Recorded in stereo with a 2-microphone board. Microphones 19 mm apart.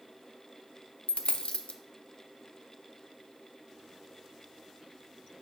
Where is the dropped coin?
65° left (ahead or behind), 0.5 m.